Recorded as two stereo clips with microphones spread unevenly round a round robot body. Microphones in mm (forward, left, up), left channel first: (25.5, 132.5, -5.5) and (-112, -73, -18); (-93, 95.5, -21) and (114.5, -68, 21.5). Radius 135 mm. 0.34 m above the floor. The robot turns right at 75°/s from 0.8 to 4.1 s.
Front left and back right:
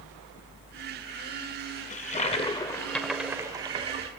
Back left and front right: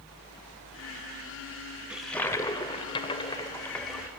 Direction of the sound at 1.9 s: 65° left.